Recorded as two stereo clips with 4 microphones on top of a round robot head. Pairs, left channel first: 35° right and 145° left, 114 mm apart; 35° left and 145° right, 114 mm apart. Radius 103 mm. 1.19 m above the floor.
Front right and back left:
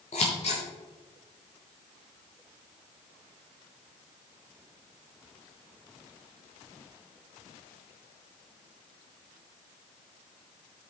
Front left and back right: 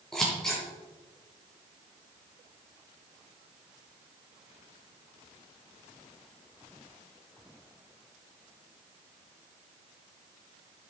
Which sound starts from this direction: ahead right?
Scissors, at 0.1 s.